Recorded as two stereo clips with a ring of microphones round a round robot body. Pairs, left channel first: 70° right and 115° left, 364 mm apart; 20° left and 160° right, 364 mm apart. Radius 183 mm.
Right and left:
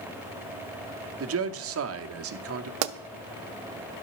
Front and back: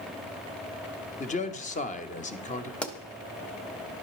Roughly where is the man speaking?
Left.